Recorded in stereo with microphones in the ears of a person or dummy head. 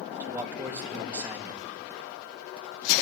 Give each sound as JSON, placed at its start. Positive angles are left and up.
{"t": 0.2, "sound": "a man speaking", "side_deg": -15, "distance_m": 2.5}